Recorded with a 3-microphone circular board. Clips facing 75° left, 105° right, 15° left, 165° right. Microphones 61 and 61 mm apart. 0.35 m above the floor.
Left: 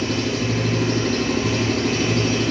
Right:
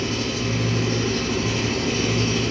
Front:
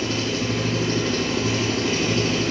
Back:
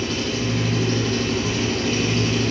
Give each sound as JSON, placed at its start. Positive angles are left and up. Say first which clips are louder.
{"t": 0.0, "sound": "an engine running", "louder": "left 3 dB, even", "azimuth_deg": 85, "distance_m": 9.5}